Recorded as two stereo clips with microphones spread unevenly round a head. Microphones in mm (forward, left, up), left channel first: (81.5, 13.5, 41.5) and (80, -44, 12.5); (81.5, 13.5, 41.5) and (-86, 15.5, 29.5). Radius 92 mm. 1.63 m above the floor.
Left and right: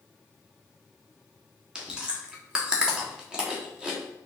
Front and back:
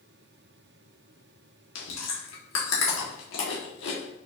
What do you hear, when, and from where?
1.8 s chewing: 10° right, 1.4 m